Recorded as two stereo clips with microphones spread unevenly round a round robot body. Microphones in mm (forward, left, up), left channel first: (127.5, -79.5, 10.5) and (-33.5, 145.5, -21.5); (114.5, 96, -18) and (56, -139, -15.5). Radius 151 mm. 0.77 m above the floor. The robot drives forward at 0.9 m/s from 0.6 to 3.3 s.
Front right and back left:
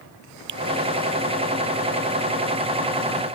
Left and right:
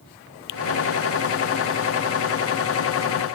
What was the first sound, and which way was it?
A finger snap, 105° left.